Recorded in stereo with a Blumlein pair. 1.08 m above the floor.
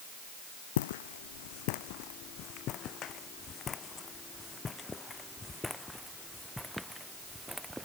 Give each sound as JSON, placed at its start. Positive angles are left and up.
{"t": 0.8, "sound": "footsteps", "azimuth_deg": 55}